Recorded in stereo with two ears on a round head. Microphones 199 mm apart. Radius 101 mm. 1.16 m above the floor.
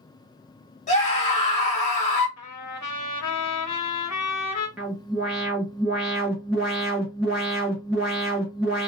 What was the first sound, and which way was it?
A scream, 35° left (ahead or behind).